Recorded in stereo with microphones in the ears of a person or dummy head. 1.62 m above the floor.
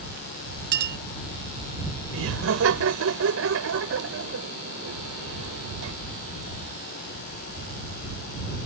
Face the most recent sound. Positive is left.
turn(degrees=-80)